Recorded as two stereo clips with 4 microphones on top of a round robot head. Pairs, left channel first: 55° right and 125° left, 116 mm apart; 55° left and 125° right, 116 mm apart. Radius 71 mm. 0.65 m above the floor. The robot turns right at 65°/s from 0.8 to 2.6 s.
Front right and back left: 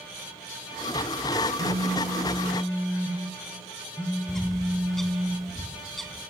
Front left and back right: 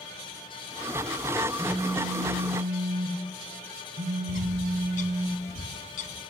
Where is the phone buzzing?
155° left, 6 m; by 5.3 s 140° right, 6 m.